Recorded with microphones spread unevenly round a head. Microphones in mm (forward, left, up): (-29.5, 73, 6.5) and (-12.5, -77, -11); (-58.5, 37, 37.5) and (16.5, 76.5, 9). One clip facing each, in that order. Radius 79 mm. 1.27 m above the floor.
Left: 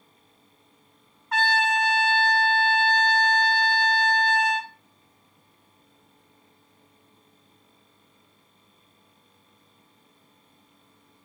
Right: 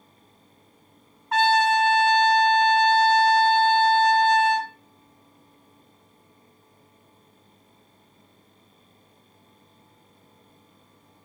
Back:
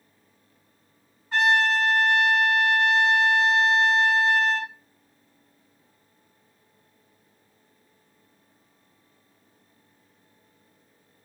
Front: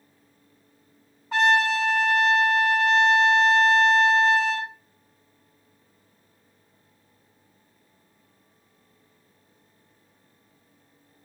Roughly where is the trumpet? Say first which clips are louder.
Right 5 dB, front 1 dB; ahead.